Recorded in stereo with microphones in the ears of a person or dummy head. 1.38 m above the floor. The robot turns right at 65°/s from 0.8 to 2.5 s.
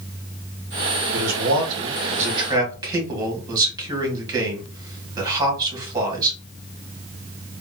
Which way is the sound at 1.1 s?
70° right (ahead or behind).